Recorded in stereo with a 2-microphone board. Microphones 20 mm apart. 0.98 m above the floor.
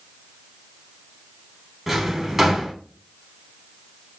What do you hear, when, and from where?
1.9 s a drawer: 15° right (ahead or behind), 1.4 m